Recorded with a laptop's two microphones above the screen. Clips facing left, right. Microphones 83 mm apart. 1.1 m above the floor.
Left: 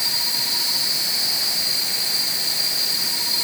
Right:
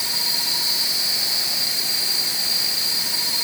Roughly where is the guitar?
I don't hear a guitar.